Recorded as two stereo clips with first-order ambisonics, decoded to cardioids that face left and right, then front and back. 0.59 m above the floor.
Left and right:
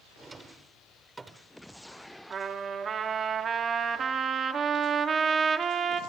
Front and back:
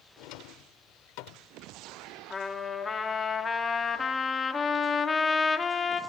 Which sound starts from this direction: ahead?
A drawer, at 0.2 s.